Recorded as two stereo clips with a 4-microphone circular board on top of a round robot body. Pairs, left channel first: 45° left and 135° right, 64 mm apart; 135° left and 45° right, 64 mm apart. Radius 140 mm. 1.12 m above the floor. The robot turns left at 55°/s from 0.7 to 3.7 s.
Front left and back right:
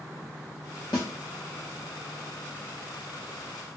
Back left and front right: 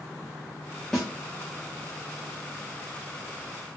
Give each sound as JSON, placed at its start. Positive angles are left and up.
{"t": 0.9, "sound": "a snare drum", "azimuth_deg": 55, "distance_m": 0.7}